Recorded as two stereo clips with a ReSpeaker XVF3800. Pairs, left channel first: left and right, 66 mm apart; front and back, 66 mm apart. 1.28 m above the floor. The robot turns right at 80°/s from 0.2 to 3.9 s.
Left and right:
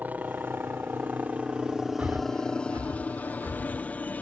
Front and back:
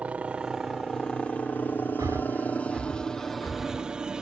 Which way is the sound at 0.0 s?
130° right.